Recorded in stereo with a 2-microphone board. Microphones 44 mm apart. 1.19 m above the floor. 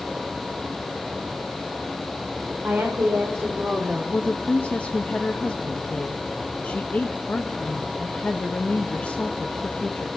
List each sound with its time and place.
2.6 s a woman speaking: 65° right (ahead or behind), 5 m; by 4.0 s 70° right (ahead or behind), 3.5 m
4.1 s a woman speaking: 40° left (ahead or behind), 0.9 m